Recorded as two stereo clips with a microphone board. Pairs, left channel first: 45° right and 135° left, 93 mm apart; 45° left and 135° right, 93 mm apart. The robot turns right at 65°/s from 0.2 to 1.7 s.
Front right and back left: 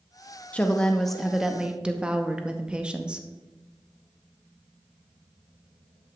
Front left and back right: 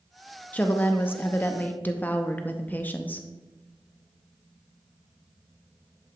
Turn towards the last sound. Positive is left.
turn(degrees=75)